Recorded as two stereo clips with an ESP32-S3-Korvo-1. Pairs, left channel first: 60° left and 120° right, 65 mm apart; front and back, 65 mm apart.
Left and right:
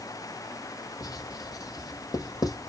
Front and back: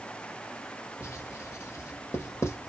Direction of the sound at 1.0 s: 45° left.